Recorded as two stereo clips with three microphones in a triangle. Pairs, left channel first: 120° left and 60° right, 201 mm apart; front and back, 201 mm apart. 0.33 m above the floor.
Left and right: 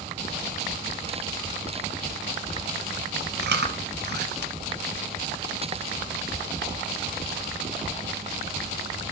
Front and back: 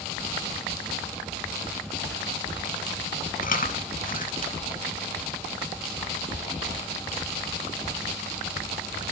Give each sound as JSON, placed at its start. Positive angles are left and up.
{"t": 3.4, "sound": "chewing", "azimuth_deg": -40, "distance_m": 0.6}